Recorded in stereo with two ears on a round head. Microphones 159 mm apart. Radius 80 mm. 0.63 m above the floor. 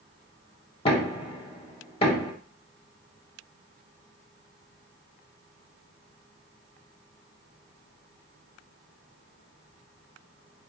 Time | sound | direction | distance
0.8 | knocking | 30° left (ahead or behind) | 1.1 m